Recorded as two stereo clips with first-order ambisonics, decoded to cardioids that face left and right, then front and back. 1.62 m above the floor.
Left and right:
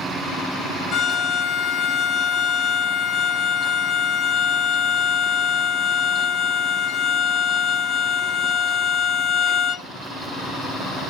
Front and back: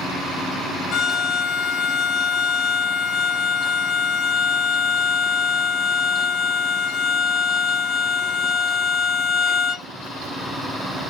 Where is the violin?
45° left, 0.6 m.